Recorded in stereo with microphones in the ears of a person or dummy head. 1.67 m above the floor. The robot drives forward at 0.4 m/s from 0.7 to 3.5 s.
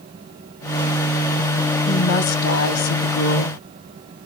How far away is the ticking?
I don't hear ticking.